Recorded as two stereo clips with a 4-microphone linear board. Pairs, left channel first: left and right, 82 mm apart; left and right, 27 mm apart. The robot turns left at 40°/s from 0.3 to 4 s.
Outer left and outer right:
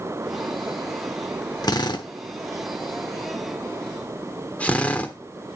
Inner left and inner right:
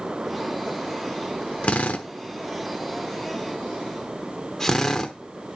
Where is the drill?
55° left (ahead or behind), 0.9 m; by 5.1 s 15° left (ahead or behind), 0.9 m.